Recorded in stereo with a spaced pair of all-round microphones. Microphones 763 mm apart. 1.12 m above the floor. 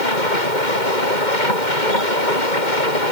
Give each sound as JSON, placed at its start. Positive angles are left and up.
{"t": 0.0, "sound": "a machine running", "side_deg": 70}